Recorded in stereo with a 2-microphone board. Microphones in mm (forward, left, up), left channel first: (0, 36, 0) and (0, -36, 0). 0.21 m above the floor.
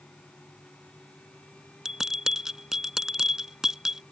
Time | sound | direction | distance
1.9 | a bell | 5° right (ahead or behind) | ?